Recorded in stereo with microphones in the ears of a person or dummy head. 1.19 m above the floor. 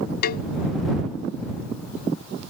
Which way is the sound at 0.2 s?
45° left (ahead or behind).